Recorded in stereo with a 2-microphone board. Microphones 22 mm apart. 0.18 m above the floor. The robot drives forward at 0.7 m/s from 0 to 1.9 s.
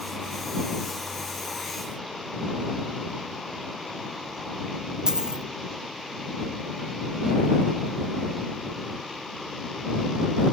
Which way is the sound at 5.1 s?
35° right (ahead or behind).